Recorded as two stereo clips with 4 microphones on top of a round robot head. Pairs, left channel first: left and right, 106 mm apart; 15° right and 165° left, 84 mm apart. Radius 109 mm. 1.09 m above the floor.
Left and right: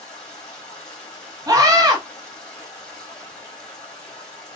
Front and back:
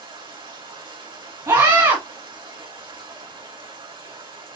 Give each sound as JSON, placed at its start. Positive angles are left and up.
{"t": 0.0, "sound": "running water", "azimuth_deg": 170, "distance_m": 3.5}
{"t": 1.5, "sound": "a scream", "azimuth_deg": -140, "distance_m": 1.7}